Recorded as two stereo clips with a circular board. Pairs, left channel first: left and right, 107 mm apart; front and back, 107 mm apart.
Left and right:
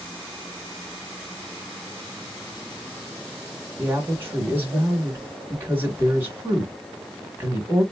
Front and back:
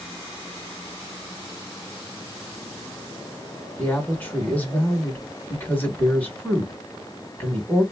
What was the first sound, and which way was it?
A woman speaking, 55° right.